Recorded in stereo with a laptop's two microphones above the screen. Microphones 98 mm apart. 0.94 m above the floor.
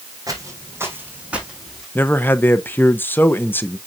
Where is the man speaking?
20° left (ahead or behind), 0.6 m.